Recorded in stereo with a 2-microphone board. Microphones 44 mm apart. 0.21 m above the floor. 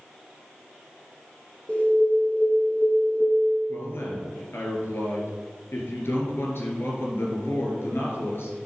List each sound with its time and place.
1.7 s an alarm: 30° left (ahead or behind), 1.5 m
3.7 s a man speaking: 65° left (ahead or behind), 3.5 m